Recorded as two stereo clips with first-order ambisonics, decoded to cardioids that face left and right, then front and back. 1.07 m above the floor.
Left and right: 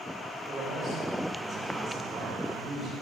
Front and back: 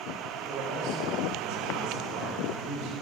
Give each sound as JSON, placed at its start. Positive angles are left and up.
{"t": 0.5, "sound": "a man speaking", "azimuth_deg": -150, "distance_m": 6.0}